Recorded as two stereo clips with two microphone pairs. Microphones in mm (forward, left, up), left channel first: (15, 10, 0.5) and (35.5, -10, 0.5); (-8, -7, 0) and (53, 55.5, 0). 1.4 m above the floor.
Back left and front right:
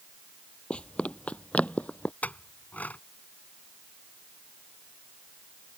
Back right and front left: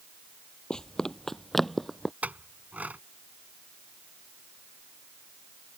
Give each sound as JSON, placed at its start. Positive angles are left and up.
{"t": 0.7, "sound": "running footsteps", "azimuth_deg": 145}
{"t": 2.2, "sound": "a clink", "azimuth_deg": 120}